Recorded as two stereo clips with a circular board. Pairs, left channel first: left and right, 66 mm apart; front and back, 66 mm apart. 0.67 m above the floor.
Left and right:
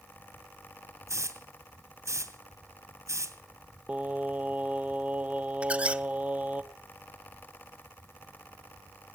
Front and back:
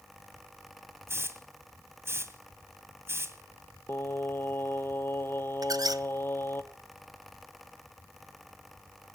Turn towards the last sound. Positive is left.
turn(degrees=-160)